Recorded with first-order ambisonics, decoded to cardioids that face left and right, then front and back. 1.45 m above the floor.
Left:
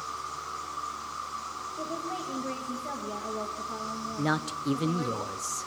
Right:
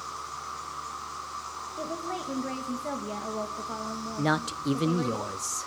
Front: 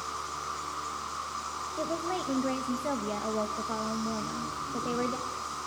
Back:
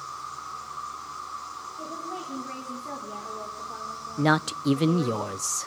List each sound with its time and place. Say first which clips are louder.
0.0 s an insect: left 1 dB, front 1 dB; 15° right, 6 m
1.8 s a woman speaking: right 1 dB, front 4 dB; 20° right, 2 m
4.2 s a woman speaking: right 3 dB, back 10 dB; 170° right, 0.5 m